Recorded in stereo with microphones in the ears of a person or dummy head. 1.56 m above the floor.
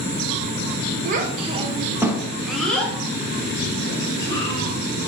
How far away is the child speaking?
About 0.7 m.